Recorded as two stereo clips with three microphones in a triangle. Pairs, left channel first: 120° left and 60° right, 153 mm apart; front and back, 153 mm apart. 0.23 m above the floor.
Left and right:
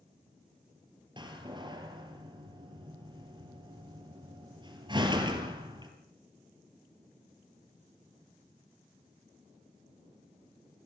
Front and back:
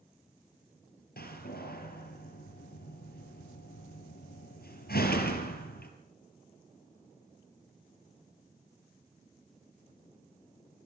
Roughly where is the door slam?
Ahead.